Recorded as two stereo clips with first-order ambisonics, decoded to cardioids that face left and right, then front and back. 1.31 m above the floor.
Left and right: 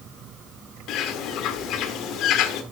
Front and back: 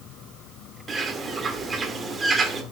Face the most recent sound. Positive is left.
turn(degrees=110)